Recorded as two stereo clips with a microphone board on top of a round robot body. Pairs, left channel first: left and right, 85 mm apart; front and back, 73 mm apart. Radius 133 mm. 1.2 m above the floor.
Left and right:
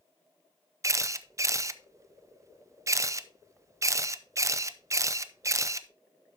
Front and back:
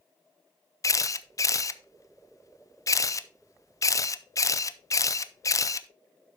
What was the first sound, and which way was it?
A camera shutter, 40° right.